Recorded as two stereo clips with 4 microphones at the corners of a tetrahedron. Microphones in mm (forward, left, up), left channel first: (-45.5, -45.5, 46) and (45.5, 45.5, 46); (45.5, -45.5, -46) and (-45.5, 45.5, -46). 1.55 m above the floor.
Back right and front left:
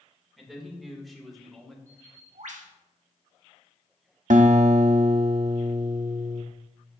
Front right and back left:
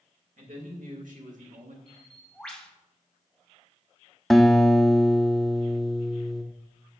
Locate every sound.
0.4 s a man speaking: 135° left, 2 m
1.9 s a bird: 40° left, 1.0 m
4.3 s a guitar: 40° left, 0.5 m